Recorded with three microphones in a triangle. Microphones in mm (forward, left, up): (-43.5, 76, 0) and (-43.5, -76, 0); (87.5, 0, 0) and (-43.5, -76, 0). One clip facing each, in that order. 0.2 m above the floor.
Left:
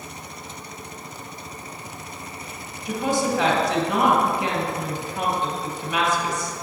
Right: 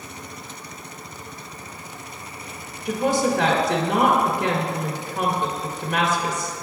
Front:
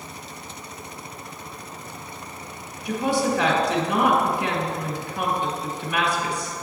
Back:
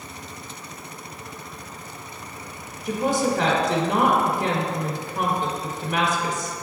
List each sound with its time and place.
2.9 s a woman speaking: 115° right, 1.8 m